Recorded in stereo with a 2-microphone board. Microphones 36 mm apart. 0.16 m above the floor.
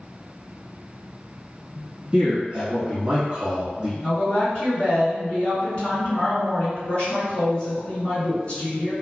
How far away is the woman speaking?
About 2.0 m.